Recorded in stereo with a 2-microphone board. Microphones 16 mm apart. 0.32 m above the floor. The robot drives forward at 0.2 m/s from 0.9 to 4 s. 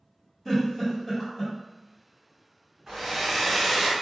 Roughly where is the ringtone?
I don't hear a ringtone.